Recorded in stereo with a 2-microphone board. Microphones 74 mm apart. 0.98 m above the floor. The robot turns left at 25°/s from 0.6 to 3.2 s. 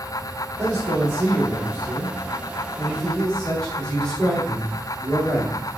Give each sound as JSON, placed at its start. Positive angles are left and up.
{"t": 0.6, "sound": "a man speaking", "azimuth_deg": -120, "distance_m": 2.5}